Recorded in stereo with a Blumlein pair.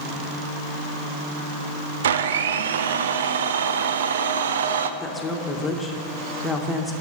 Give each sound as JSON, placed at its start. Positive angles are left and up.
{"t": 2.0, "sound": "a blender", "azimuth_deg": -60, "distance_m": 0.7}
{"t": 5.0, "sound": "a woman speaking", "azimuth_deg": 15, "distance_m": 1.6}